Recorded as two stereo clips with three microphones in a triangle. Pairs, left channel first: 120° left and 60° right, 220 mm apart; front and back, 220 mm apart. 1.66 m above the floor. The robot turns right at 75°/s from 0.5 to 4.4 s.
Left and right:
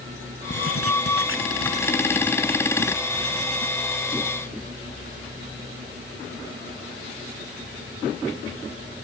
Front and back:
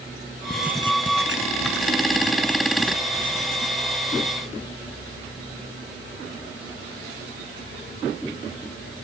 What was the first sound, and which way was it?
Writing, 85° left.